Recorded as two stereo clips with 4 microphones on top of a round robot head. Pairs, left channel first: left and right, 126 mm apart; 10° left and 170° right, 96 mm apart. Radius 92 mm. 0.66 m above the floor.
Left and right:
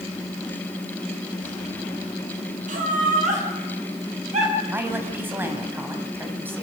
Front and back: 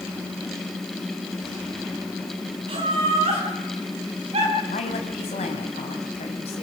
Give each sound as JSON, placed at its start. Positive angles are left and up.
{"t": 2.7, "sound": "laughter", "azimuth_deg": -120, "distance_m": 6.5}
{"t": 4.7, "sound": "a woman speaking", "azimuth_deg": -15, "distance_m": 4.0}